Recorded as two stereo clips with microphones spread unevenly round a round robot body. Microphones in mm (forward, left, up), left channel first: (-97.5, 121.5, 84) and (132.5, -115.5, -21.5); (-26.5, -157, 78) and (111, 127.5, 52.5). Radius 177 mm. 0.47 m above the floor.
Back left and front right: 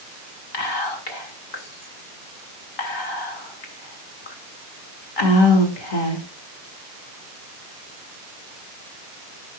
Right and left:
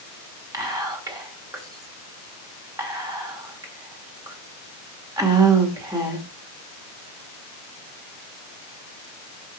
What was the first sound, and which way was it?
Whispering, 140° left.